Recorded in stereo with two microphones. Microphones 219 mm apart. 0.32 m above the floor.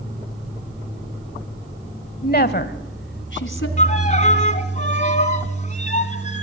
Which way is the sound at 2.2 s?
40° left (ahead or behind).